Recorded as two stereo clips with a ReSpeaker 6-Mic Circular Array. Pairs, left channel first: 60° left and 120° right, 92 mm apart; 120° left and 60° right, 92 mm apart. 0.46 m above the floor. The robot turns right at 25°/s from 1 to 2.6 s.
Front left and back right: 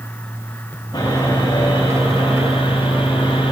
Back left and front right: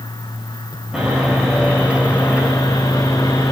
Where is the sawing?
20° left, 8 m; by 3.5 s 60° left, 8 m.